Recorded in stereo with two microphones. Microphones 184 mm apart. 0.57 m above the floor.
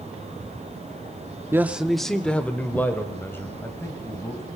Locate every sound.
1.5 s a man speaking: 15° right (ahead or behind), 0.7 m; by 4.4 s 15° left (ahead or behind), 3.5 m